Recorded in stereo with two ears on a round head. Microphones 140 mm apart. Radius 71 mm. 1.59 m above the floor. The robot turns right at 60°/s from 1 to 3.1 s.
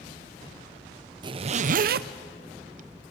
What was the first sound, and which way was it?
A zipper, 30° right (ahead or behind).